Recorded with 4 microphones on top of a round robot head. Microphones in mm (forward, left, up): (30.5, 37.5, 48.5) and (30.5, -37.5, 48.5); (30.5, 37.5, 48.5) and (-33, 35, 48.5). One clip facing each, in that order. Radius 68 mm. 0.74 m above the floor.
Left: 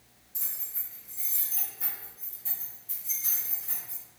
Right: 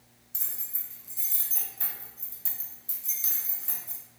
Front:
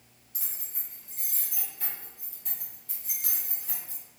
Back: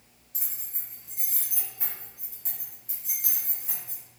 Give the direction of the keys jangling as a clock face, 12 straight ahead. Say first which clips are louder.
Even, even; 3 o'clock.